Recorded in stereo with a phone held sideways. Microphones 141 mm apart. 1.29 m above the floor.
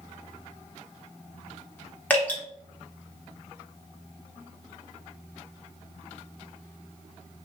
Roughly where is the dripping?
Centre.